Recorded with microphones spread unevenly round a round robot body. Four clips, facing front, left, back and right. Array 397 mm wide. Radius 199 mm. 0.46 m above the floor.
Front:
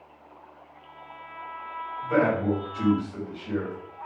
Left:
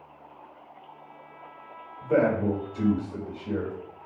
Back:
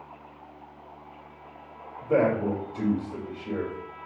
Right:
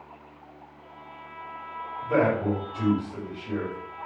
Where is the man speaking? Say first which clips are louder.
Even, even; 150° left, 1.9 m.